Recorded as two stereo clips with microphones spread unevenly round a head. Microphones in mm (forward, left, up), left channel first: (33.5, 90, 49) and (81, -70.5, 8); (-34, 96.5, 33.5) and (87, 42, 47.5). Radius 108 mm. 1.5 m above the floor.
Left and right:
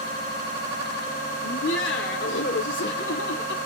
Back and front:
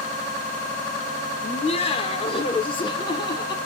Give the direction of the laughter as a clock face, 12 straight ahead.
8 o'clock.